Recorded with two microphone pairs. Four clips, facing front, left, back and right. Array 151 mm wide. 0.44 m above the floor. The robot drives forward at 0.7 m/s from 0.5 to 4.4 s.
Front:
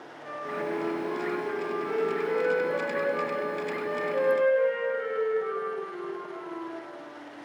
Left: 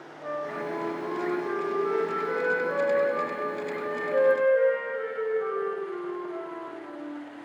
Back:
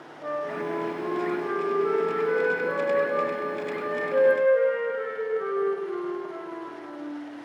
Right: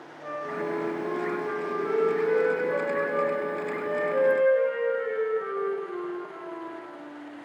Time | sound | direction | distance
0.2 | a flute | 175° left | 2.5 m